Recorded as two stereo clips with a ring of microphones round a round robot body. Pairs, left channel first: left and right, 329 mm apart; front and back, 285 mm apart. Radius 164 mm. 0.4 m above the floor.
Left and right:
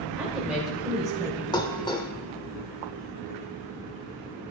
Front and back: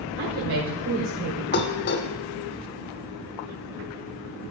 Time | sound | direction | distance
0.2 | a woman speaking | 175° right | 1.6 m
1.5 | dishes clattering | 20° left | 0.7 m